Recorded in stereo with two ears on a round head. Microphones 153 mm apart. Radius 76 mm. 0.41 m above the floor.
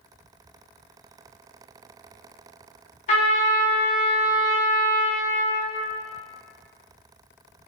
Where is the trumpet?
45° left (ahead or behind), 0.9 m.